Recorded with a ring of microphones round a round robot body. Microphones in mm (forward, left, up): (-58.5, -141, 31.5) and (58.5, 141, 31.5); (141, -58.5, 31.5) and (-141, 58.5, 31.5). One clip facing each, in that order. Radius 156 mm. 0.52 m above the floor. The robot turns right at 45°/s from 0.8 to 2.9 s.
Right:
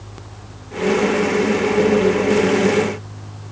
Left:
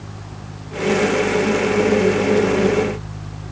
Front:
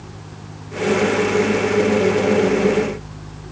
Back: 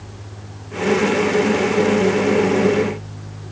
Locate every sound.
Only background noise.